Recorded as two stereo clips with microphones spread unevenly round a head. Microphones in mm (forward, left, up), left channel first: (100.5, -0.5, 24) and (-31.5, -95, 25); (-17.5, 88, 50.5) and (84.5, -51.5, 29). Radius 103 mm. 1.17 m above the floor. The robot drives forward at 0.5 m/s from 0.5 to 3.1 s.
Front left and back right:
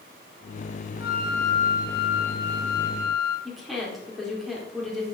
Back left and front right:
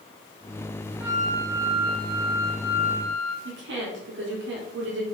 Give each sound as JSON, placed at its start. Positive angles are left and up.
{"t": 1.0, "sound": "a flute", "azimuth_deg": 15, "distance_m": 4.0}
{"t": 3.5, "sound": "a woman speaking", "azimuth_deg": -55, "distance_m": 4.0}